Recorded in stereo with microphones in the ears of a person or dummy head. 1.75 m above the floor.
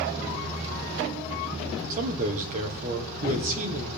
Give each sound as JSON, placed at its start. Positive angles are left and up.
{"t": 1.9, "sound": "a man speaking", "side_deg": -40, "distance_m": 1.5}